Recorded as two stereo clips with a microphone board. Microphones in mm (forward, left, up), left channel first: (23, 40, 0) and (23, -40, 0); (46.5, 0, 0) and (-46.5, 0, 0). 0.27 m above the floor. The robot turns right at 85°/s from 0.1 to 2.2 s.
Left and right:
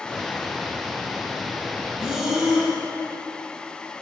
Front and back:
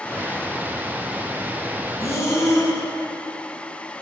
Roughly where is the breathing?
Ahead right.